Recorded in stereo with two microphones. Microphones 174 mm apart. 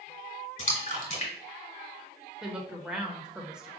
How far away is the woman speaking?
About 0.9 m.